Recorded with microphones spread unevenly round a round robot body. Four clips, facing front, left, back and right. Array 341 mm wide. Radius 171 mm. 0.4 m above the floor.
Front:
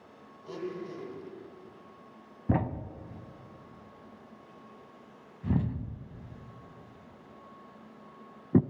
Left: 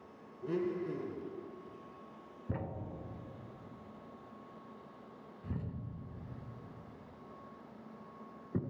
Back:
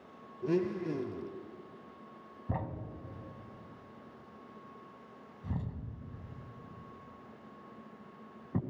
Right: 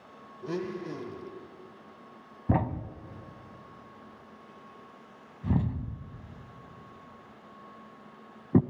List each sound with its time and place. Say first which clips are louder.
0.4 s a blender: right 1 dB, back 7 dB; 170° right, 1.6 m
2.5 s a thud: right 12 dB, front 9 dB; 50° right, 1.0 m